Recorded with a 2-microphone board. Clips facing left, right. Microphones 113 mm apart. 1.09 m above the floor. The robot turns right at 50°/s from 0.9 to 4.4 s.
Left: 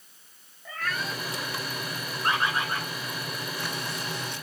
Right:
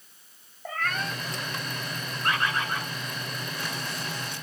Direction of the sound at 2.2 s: 150° left.